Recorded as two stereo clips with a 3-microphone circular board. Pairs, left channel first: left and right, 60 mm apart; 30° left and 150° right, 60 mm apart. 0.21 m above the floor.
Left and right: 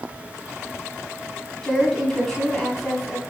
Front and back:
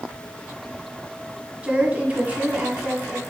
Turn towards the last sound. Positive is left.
turn(degrees=165)